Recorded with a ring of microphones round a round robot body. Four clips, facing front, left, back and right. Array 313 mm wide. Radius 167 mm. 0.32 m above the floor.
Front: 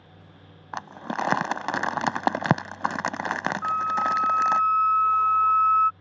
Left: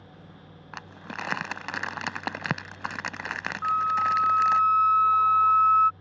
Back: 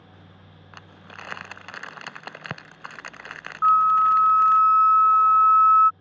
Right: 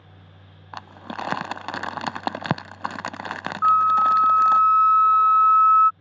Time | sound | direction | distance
0.7 | crumpling | 20° right | ?
3.6 | a flute | 130° right | ?